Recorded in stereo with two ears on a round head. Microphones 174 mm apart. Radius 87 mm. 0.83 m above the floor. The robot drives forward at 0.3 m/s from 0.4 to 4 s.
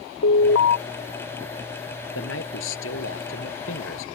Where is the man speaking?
70° left (ahead or behind).